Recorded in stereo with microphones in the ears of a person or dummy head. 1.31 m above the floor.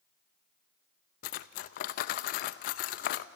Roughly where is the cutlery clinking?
Left.